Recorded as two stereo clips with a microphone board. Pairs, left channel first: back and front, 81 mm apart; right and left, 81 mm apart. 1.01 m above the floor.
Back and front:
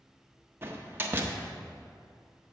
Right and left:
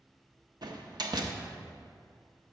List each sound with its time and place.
0.6 s a door slam: 60° left, 0.9 m